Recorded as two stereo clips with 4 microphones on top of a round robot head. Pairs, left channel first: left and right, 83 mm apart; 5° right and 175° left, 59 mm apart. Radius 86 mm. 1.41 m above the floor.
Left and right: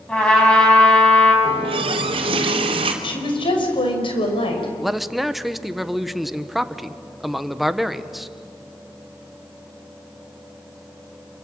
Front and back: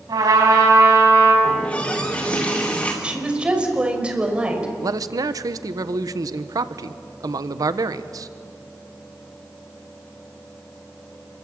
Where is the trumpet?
170° left, 6 m.